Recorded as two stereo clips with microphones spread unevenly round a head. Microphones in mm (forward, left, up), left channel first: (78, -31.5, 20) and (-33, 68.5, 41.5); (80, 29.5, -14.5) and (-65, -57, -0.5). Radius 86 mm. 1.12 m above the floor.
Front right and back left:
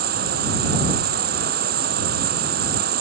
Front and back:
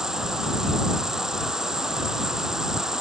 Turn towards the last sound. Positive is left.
turn(degrees=125)